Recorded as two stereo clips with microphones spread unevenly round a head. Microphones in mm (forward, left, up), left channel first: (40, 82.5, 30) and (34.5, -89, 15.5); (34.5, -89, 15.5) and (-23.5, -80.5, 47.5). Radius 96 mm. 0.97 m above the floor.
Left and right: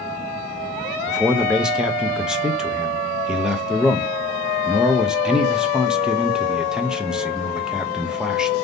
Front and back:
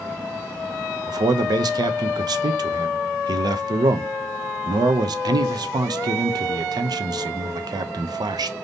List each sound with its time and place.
1.1 s a man speaking: 175° right, 0.6 m